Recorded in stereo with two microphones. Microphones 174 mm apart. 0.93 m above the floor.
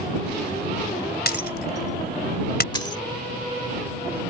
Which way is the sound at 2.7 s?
25° left (ahead or behind).